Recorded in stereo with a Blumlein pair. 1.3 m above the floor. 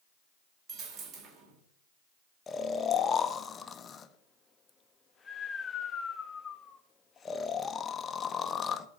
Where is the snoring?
20° left, 0.5 m.